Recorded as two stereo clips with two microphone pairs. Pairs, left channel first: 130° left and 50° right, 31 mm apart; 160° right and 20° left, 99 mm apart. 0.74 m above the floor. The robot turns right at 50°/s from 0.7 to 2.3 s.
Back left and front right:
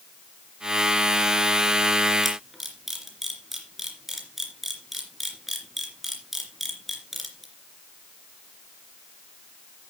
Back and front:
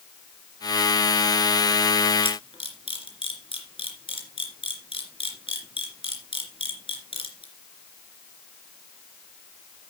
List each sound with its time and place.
2.2 s a camera shutter: 140° right, 2.5 m